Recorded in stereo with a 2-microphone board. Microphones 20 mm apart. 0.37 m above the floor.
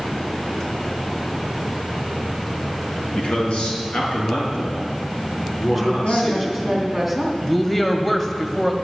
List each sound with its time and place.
3.1 s a man speaking: 60° left (ahead or behind), 4 m; by 6.7 s 65° left (ahead or behind), 7 m
5.7 s a woman speaking: 5° left (ahead or behind), 3.5 m
7.4 s a woman speaking: 10° left (ahead or behind), 1.7 m